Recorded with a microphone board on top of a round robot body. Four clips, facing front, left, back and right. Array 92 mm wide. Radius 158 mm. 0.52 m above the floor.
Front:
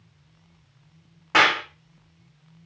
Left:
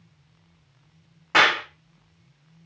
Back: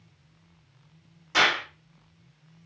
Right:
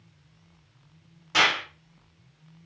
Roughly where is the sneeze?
No sneeze in this recording.